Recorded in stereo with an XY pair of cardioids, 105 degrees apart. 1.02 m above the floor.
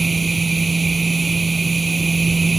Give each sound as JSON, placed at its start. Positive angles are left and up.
{"t": 0.0, "sound": "a machine running", "azimuth_deg": -25}